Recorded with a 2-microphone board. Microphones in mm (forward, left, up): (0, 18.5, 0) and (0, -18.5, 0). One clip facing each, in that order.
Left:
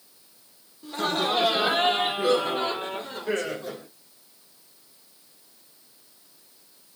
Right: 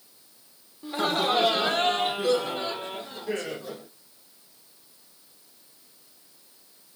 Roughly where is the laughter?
Centre.